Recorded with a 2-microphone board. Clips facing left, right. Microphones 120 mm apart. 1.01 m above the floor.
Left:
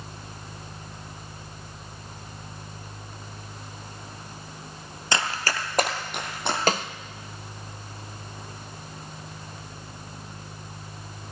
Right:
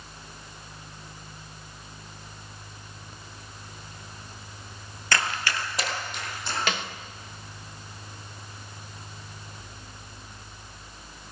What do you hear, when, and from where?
5.1 s running footsteps: 20° left (ahead or behind), 1.0 m; by 6.6 s 65° left (ahead or behind), 2.5 m
6.7 s a snare drum: 40° left (ahead or behind), 0.6 m